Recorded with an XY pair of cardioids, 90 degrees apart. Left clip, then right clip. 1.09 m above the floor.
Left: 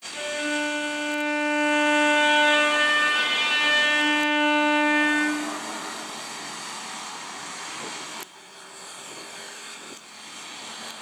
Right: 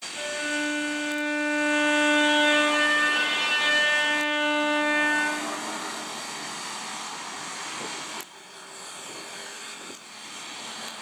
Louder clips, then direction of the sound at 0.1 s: Left 2 dB; 40° left.